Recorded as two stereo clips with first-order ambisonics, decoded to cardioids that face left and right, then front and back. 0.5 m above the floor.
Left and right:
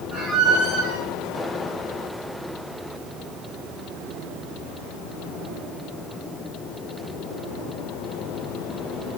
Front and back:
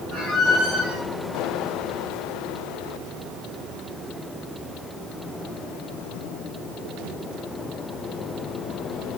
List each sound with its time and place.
0.1 s a squeak: 130° right, 4.5 m